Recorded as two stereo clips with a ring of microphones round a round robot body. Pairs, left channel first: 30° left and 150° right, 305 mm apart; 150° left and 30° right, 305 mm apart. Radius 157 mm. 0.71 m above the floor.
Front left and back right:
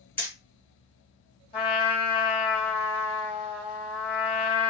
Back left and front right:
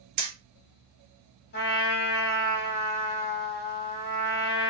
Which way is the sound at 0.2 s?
55° right.